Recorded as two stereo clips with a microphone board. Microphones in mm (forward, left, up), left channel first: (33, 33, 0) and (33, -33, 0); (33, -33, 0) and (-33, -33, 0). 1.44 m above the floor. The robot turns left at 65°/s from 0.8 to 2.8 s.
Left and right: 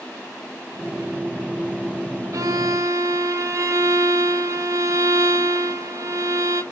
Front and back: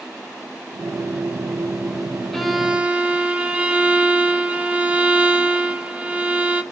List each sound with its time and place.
2.3 s a violin: 85° right, 0.9 m; by 6.6 s 115° right, 0.9 m